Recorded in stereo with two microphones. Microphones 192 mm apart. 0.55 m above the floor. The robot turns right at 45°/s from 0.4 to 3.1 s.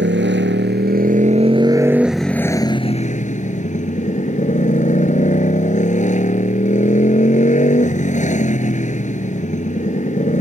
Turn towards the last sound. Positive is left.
turn(degrees=40)